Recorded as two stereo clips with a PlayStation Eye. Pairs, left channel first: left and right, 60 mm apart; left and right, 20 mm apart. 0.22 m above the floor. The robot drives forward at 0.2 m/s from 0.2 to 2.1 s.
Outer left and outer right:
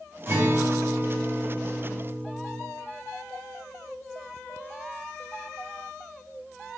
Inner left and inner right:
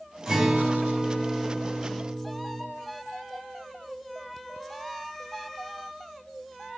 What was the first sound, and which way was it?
A guitar, 30° right (ahead or behind).